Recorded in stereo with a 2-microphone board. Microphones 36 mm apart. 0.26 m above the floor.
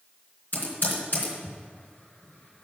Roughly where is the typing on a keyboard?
Left.